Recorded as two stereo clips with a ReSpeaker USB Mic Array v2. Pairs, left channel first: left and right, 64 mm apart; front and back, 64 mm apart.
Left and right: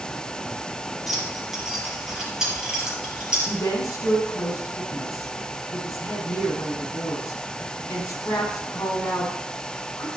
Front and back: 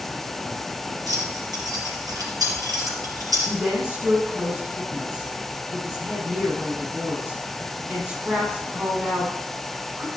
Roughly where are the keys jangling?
Behind.